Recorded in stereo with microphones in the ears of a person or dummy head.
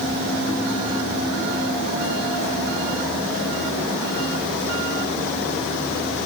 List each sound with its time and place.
Only background noise.